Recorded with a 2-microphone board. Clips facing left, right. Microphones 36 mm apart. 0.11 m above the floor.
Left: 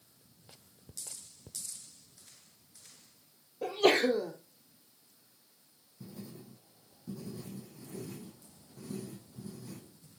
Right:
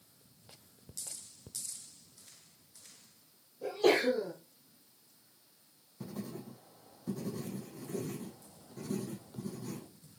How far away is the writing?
About 1.2 m.